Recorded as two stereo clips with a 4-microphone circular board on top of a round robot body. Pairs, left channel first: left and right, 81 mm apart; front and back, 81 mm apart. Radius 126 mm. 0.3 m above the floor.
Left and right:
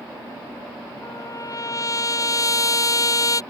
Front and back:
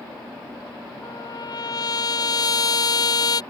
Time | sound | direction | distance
1.0 | a trumpet | 40° left | ?